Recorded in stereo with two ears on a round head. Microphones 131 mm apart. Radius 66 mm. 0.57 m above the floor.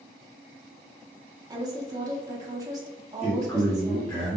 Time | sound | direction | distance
1.5 | a woman speaking | 25° right (ahead or behind) | 0.6 m
3.2 | a man speaking | 10° left (ahead or behind) | 1.9 m